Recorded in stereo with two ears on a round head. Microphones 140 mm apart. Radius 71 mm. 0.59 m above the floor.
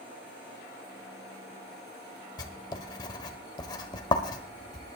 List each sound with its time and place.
2.4 s writing: 25° left (ahead or behind), 1.1 m